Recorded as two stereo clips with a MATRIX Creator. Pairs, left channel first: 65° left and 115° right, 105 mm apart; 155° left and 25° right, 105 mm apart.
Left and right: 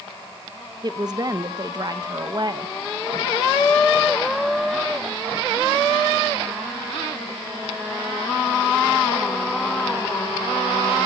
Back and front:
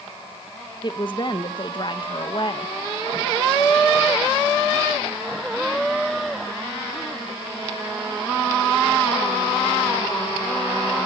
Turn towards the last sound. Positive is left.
turn(degrees=-160)